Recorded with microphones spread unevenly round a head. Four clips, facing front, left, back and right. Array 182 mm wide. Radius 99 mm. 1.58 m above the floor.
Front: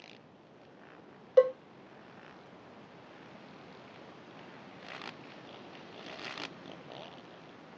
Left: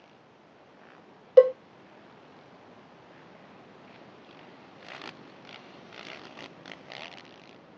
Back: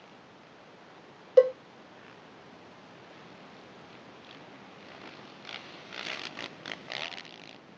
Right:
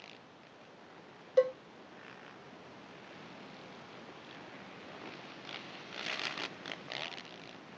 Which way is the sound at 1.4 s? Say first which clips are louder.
Left 11 dB, back 3 dB; 115° left.